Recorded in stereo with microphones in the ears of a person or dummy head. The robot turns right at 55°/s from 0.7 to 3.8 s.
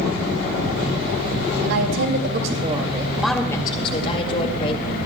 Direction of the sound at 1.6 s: 90° right.